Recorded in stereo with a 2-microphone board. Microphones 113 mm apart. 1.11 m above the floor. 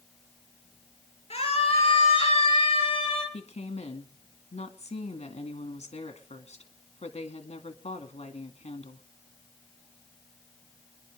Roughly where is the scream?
Left.